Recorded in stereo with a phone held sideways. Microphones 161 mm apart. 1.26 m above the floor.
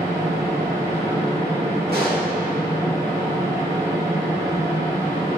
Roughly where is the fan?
Right.